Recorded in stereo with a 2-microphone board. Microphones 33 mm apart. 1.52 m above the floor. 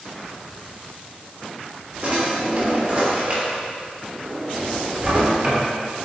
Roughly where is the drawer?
Right.